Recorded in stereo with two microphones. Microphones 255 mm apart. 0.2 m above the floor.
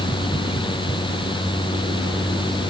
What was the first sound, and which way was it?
Only background noise.